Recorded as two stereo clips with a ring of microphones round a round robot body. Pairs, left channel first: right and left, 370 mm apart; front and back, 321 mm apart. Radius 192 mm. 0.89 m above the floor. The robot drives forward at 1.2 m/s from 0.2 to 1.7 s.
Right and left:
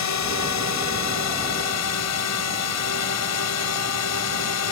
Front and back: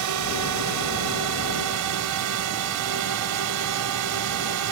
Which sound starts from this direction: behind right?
A drone, at 0.0 s.